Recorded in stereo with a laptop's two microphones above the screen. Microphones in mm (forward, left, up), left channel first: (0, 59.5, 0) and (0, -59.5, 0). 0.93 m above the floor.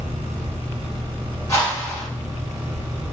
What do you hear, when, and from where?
0.0 s a fan: 70° right (ahead or behind), 1.0 m
1.5 s a whoosh: 25° left (ahead or behind), 1.5 m